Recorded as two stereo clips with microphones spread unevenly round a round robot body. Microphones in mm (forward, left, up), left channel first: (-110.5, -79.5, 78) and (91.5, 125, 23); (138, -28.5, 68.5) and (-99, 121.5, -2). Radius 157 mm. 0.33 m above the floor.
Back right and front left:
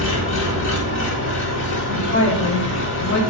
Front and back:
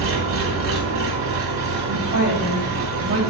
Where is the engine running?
175° left, 2.0 m.